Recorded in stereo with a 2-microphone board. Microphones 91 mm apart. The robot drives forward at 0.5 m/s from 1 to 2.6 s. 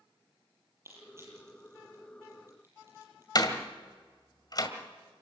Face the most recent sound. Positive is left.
turn(degrees=45)  # may be behind; listen again after turning